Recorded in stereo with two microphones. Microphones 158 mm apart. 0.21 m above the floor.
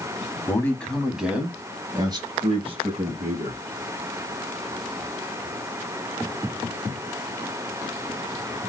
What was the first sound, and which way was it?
A man speaking, 15° left (ahead or behind).